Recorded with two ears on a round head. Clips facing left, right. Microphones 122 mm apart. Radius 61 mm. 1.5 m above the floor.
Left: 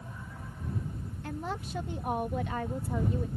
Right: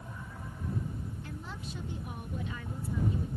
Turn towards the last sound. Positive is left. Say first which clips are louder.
# left 6 dB
turn(degrees=50)  # may be behind; listen again after turning